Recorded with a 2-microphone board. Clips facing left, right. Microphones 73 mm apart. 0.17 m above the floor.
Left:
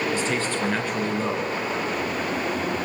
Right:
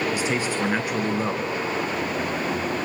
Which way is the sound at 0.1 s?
10° right (ahead or behind).